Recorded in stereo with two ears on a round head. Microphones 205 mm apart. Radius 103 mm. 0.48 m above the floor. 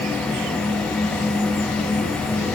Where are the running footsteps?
No running footsteps in this recording.